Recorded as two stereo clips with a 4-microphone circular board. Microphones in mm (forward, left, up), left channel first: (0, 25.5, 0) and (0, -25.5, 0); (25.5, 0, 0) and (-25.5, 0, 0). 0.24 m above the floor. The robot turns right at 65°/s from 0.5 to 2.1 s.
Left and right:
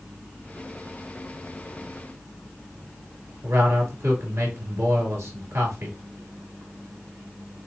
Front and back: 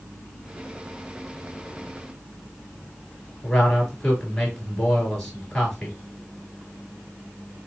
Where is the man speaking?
75° right, 3 m.